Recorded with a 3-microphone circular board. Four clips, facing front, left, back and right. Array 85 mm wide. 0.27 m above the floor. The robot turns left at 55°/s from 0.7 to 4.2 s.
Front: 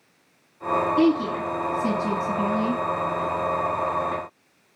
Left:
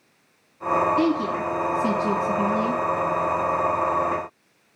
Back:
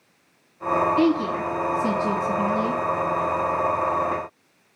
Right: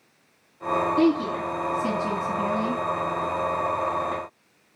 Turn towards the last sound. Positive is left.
turn(degrees=-30)